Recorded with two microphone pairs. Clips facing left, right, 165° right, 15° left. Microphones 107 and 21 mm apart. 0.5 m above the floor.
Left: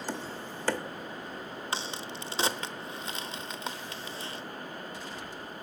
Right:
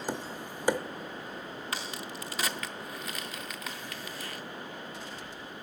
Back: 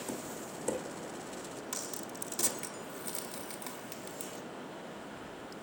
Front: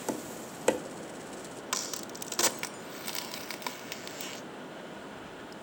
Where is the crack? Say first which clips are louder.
Left 3 dB, front 9 dB; 40° left, 0.5 m.